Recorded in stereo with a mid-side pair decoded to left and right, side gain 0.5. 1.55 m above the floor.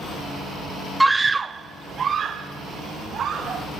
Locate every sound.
1.0 s a scream: 5° right, 0.5 m; by 3.6 s 50° right, 3 m